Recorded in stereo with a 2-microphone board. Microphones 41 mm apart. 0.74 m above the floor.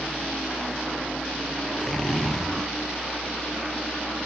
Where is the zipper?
15° left (ahead or behind), 3 m.